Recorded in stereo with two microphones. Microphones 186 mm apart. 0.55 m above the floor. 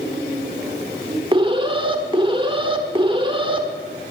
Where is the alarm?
25° right (ahead or behind), 1.3 m.